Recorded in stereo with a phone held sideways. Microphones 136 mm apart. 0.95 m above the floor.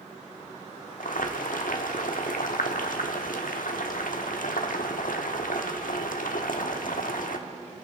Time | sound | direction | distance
1.0 | boiling | 80° left | 1.1 m